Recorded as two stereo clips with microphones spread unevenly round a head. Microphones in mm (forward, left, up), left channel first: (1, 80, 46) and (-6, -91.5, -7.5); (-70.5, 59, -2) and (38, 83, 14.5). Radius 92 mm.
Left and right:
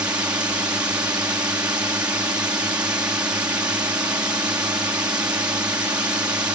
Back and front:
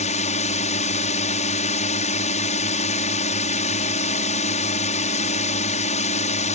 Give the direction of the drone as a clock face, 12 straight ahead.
6 o'clock.